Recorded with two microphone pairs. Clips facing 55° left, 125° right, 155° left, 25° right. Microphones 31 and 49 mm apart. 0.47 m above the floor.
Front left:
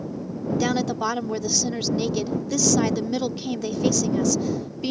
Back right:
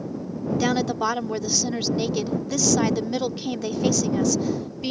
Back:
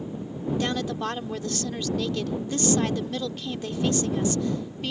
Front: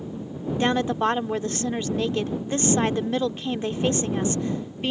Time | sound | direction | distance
0.6 | a woman speaking | 45° right | ?